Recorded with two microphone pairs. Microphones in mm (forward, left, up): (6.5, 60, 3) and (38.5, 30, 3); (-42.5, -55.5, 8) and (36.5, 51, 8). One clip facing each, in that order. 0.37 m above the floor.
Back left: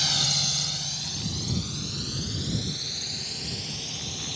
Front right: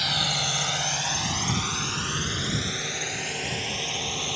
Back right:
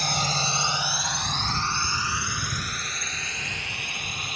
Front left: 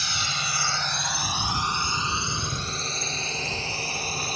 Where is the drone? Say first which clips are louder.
Front right 2 dB, back right 6 dB; 115° right; by 4.4 s straight ahead.